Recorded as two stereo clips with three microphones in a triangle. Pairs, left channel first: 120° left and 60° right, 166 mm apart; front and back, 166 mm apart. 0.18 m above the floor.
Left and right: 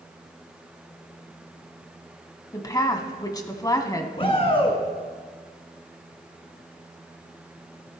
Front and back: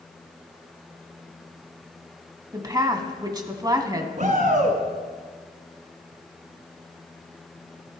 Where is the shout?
165° left, 1.7 m.